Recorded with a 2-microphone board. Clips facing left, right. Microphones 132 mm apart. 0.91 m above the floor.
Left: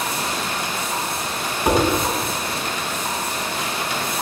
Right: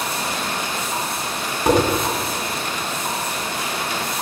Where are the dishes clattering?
15° right (ahead or behind), 4.5 m.